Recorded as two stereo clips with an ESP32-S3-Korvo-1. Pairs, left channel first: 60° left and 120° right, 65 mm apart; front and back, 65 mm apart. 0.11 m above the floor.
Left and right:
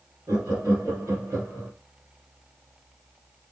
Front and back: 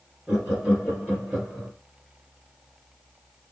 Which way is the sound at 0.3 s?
115° right.